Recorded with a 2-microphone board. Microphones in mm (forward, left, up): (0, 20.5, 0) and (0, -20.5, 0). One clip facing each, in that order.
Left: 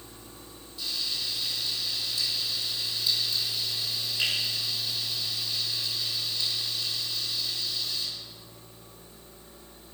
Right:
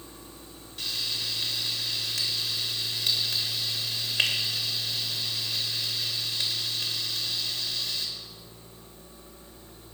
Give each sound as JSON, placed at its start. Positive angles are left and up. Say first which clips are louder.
{"t": 0.8, "sound": "frying", "louder": "right 1 dB", "side_deg": -60, "distance_m": 3.0}